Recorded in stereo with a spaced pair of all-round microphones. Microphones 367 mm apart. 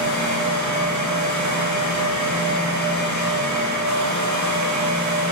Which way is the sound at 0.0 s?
50° right (ahead or behind).